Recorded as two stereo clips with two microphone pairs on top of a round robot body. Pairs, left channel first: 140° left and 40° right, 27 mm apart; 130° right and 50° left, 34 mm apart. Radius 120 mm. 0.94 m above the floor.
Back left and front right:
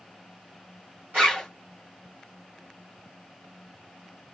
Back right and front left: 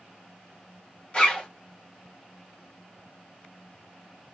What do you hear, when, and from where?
1.1 s a zipper: 70° right, 1.9 m